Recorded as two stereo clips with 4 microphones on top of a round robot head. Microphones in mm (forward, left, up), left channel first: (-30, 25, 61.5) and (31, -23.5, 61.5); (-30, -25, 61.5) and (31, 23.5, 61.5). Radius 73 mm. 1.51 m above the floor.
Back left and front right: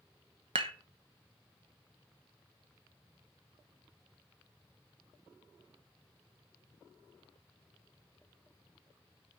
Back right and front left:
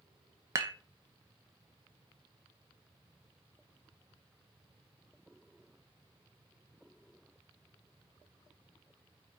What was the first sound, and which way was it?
Dishes clattering, 15° right.